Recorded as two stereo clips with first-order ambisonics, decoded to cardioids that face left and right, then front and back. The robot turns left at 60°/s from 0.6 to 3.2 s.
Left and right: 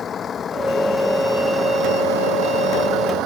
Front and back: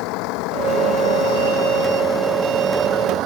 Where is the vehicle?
25° left; by 3.3 s 135° right.